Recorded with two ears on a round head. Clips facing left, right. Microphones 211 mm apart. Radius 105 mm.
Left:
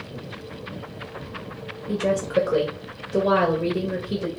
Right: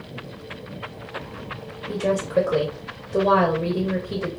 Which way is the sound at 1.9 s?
10° left (ahead or behind).